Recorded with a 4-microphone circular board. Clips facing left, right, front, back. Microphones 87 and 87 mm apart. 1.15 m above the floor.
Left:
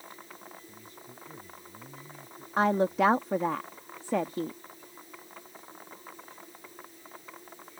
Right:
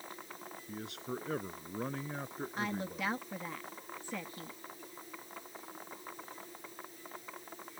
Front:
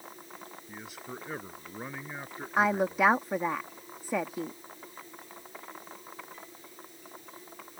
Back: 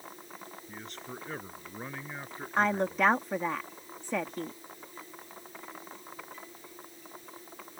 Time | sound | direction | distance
0.7 | a man speaking | 85° right | ?
2.6 | a woman speaking | 80° left | ?